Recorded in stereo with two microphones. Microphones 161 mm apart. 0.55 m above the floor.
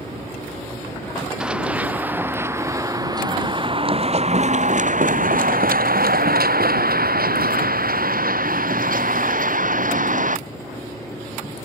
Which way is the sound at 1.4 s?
5° right (ahead or behind).